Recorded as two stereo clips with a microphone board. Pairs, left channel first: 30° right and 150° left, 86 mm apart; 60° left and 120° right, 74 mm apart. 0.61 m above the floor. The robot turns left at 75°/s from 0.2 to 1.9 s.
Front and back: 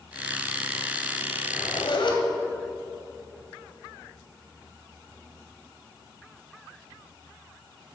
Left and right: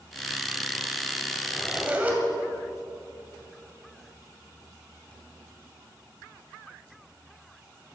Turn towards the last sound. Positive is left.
turn(degrees=-50)